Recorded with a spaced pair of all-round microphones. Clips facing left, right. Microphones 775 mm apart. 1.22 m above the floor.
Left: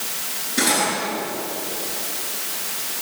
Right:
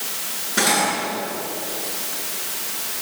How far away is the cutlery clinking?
About 8.5 m.